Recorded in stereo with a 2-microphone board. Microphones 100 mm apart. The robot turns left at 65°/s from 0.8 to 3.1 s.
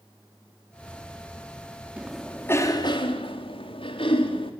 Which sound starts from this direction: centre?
A cough, at 2.0 s.